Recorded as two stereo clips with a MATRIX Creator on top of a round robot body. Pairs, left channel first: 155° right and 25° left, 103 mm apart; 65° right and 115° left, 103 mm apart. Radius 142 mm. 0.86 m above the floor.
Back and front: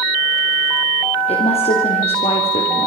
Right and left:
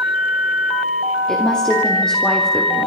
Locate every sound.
1.3 s a woman speaking: 150° right, 3.5 m